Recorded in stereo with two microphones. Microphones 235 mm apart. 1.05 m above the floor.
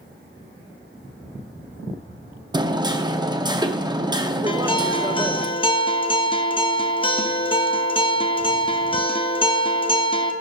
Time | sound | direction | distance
2.5 | hammering | 20° right (ahead or behind) | 0.5 m
4.5 | a guitar | 20° left (ahead or behind) | 0.7 m